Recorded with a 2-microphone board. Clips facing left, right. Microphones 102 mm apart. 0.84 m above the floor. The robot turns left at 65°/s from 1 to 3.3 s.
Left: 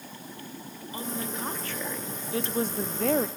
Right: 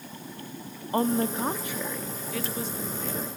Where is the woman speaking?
120° right, 1.1 m; by 3.3 s 90° left, 1.1 m.